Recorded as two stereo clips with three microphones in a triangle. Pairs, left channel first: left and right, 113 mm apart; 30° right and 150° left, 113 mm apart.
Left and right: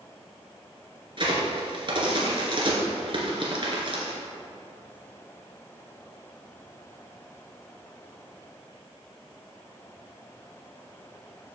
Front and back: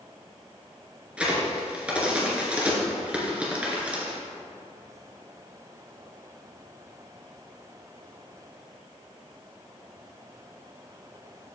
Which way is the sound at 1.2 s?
130° right.